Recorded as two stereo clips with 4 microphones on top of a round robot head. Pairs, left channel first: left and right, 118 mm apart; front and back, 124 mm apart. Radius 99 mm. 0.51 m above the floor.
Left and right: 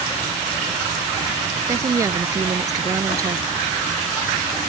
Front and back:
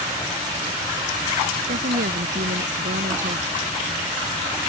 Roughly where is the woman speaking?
Behind right.